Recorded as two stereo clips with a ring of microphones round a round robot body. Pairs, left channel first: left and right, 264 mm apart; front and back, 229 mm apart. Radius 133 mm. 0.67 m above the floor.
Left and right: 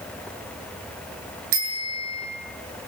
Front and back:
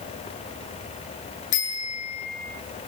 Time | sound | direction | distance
1.5 | a bicycle bell | 50° right | 7.5 m